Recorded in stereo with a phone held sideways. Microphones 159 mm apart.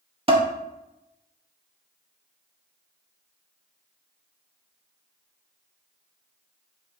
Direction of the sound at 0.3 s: 35° right (ahead or behind).